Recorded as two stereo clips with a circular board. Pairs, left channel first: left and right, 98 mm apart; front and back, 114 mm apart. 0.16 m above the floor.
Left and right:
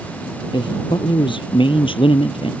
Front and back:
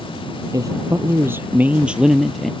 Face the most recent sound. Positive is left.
turn(degrees=90)